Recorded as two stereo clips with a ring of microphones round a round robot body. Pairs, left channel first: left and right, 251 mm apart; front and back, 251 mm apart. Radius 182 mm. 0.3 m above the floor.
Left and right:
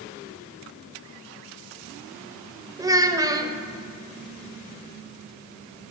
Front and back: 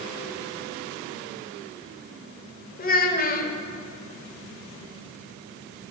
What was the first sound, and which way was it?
A child speaking, 20° right.